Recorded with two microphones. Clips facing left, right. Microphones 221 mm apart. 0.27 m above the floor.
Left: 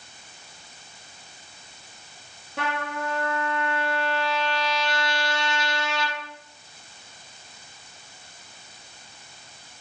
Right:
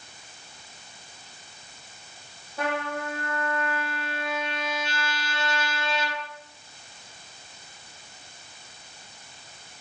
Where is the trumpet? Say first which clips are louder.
Right 1 dB; 80° left, 6.5 m.